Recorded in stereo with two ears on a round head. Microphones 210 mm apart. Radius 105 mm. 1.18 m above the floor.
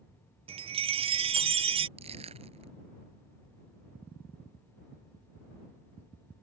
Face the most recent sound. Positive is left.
turn(degrees=-25)  # may be behind; listen again after turning